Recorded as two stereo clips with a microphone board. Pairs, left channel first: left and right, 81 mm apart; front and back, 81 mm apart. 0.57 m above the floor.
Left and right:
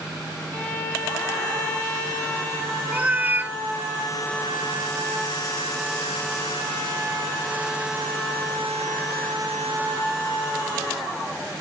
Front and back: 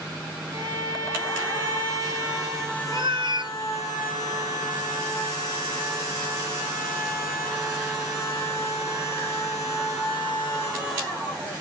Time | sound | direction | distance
0.5 | a violin | 160° left | 3 m
2.9 | a cat meowing | 155° right | 0.6 m